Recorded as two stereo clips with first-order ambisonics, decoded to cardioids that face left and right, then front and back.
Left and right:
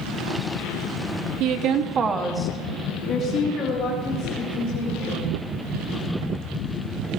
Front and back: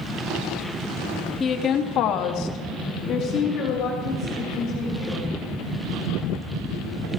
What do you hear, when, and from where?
1.4 s a woman speaking: 65° right, 1.6 m; by 5.3 s 60° left, 4.5 m